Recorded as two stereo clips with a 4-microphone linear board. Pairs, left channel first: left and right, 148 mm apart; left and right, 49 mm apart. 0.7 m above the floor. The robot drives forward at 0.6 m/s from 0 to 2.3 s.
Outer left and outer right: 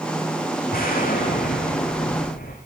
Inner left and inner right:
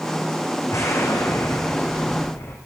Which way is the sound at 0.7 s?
85° left.